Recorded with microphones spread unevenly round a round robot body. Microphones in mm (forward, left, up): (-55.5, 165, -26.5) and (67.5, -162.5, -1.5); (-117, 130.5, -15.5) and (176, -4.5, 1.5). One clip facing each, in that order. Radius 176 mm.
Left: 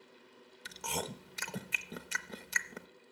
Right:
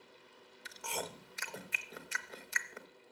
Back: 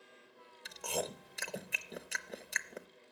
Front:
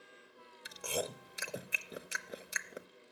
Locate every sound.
0.7 s chewing: 60° left, 0.8 m